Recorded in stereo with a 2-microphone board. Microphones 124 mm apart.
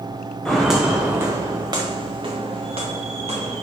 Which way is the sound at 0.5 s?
5° left (ahead or behind).